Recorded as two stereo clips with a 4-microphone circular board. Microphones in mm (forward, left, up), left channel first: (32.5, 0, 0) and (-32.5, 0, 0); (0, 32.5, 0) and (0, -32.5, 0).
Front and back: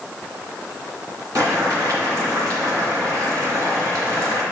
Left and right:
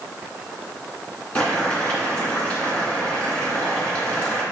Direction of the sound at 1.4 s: 160° left.